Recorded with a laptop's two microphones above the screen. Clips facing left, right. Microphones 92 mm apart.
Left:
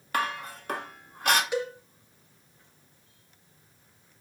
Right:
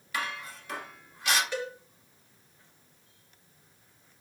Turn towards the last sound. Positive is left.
turn(degrees=15)  # may be behind; listen again after turning